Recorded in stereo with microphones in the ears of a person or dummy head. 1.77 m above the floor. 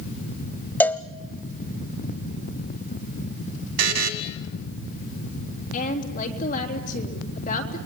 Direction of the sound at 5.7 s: 50° left (ahead or behind).